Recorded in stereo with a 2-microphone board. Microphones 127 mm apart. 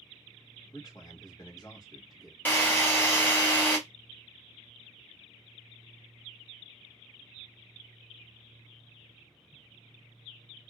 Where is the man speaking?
30° left (ahead or behind), 1.3 m.